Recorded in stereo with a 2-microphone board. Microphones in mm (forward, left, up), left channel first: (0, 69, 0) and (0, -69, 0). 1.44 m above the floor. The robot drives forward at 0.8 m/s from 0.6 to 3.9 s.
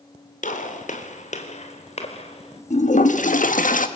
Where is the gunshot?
65° left (ahead or behind), 2.5 m; by 2.6 s 45° left (ahead or behind), 3.5 m.